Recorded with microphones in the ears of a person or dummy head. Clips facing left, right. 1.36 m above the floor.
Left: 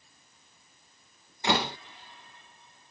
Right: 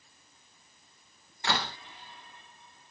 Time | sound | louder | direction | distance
1.4 | a door slam | left 5 dB | 20° left (ahead or behind) | ?